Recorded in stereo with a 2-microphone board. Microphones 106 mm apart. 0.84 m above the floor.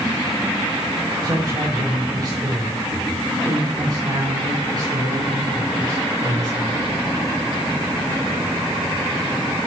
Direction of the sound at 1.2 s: 40° right (ahead or behind).